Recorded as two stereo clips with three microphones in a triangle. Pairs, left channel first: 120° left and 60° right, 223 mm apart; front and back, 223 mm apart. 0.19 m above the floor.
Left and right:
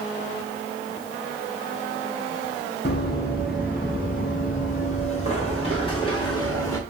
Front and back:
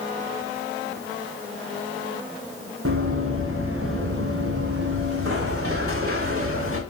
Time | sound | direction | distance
2.9 | running footsteps | 165° left | 7.5 m